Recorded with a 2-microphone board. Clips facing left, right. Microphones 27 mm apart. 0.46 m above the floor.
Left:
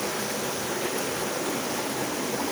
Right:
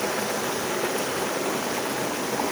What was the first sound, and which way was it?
Running water, 65° right (ahead or behind).